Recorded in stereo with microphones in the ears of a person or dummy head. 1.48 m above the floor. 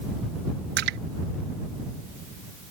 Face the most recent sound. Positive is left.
turn(degrees=-55)  # may be behind; listen again after turning